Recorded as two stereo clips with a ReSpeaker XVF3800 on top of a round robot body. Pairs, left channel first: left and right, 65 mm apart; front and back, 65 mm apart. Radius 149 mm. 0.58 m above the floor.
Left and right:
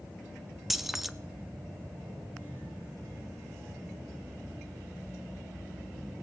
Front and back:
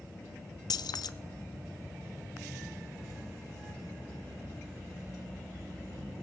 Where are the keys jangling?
5° right, 0.9 m.